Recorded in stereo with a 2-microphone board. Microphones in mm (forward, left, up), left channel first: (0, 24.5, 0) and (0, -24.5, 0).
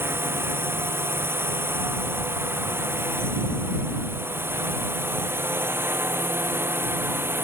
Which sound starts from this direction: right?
A drone, at 0.0 s.